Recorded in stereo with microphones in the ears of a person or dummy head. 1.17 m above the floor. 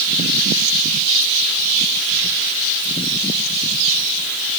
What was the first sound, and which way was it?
Only background noise.